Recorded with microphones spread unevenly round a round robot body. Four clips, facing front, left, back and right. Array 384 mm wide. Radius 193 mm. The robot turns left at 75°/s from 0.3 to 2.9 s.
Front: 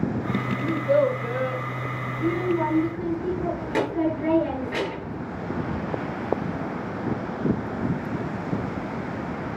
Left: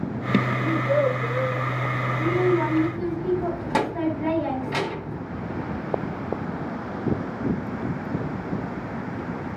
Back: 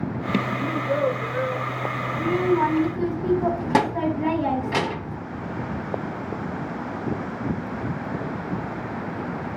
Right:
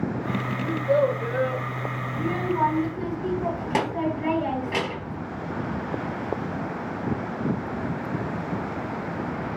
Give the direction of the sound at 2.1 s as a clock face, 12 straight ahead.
4 o'clock.